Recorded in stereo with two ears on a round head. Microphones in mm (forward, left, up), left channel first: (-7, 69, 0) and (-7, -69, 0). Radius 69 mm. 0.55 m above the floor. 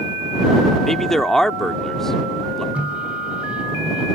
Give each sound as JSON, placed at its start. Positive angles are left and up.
{"t": 0.8, "sound": "a man speaking", "side_deg": 5}
{"t": 2.8, "sound": "a microwave", "side_deg": -10}